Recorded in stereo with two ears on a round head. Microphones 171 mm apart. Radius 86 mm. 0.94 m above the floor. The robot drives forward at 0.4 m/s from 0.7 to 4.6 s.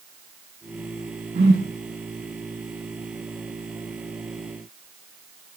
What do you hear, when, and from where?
1.4 s a whoosh: 55° right (ahead or behind), 4 m